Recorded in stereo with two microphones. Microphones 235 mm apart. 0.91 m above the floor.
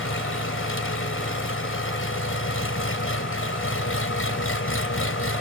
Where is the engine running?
65° left (ahead or behind).